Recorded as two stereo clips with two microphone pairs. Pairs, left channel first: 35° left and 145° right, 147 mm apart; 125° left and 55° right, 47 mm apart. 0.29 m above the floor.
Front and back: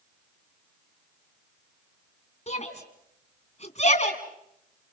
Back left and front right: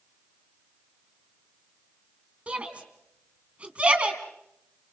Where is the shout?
5° left, 2.5 m.